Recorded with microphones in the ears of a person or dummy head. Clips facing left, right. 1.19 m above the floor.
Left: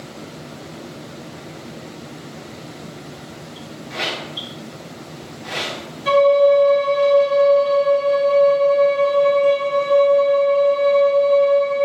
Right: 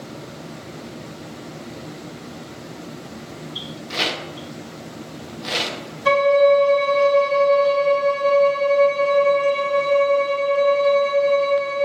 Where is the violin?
65° right (ahead or behind), 2.0 m.